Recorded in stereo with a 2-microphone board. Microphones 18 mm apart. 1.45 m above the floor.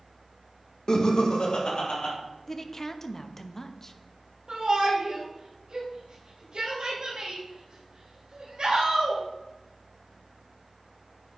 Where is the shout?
60° right (ahead or behind), 1.6 m.